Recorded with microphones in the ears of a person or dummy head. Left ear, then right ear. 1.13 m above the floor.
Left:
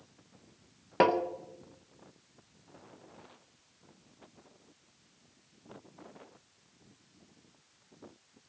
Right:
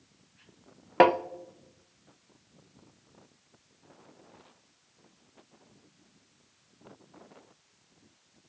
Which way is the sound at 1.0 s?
25° right (ahead or behind).